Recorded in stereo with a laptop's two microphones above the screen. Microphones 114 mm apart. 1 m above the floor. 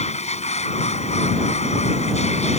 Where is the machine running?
70° left (ahead or behind).